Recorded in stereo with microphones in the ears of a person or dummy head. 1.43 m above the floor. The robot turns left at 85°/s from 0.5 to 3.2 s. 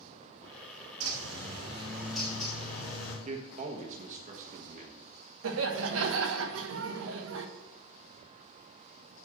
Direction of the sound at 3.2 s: 45° right (ahead or behind).